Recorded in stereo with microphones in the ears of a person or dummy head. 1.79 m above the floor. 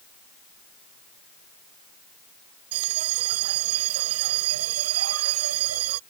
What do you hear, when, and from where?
2.7 s a bell: 90° right